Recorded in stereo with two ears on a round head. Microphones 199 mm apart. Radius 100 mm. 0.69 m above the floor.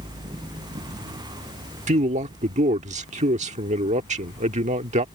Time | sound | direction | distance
1.9 | a man speaking | 30° right (ahead or behind) | ?